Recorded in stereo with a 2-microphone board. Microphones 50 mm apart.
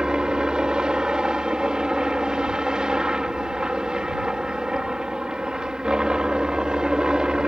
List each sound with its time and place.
0.0 s a helicopter: 15° right (ahead or behind)